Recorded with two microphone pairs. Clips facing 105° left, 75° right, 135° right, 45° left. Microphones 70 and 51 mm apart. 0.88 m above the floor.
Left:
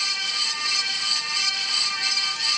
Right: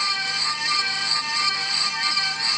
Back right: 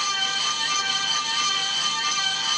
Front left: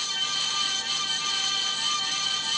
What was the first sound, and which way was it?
Only background noise.